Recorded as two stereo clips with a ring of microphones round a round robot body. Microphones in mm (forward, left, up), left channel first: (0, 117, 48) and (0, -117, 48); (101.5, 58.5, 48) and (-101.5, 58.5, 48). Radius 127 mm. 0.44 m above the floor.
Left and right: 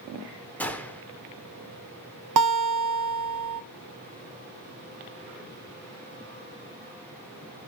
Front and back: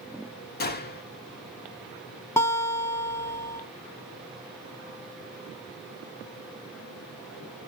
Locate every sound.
0.6 s a gunshot: 10° left, 1.2 m
2.4 s a guitar: 80° right, 0.6 m